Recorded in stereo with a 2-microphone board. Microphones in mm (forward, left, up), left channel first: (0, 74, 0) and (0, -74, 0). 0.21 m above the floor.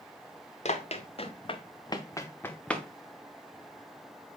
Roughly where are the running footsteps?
Left.